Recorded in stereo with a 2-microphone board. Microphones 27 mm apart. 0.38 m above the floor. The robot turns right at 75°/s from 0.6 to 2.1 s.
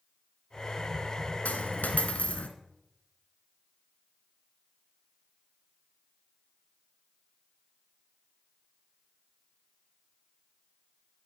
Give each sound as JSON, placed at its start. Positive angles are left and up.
{"t": 1.4, "sound": "a dropped coin", "azimuth_deg": 70, "distance_m": 1.5}